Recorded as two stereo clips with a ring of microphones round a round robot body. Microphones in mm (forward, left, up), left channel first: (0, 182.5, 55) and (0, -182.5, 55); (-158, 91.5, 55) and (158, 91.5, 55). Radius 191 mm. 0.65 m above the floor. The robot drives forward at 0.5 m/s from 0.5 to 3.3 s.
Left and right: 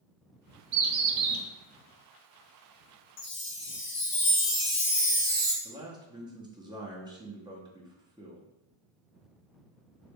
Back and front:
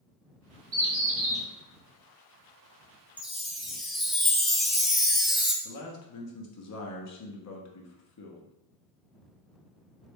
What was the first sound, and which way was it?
A bird, 45° right.